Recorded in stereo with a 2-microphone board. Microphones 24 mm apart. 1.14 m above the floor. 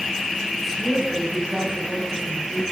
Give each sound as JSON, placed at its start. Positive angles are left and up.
{"t": 0.6, "sound": "a woman speaking", "side_deg": 0, "distance_m": 7.5}